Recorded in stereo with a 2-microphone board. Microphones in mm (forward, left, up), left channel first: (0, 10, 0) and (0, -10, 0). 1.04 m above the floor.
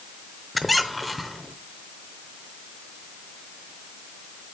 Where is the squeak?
5° left (ahead or behind), 0.8 m.